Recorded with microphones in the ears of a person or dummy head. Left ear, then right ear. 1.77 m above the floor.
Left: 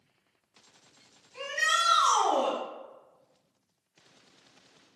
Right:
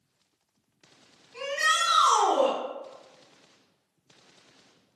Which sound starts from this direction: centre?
A shout, at 1.3 s.